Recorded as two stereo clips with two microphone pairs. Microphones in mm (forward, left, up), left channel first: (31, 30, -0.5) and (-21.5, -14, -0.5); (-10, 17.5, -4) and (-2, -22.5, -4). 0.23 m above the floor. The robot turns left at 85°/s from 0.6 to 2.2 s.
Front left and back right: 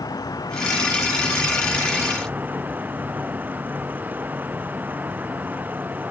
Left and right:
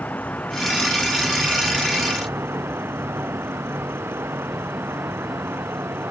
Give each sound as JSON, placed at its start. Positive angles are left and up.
{"t": 0.0, "sound": "an insect", "azimuth_deg": 55}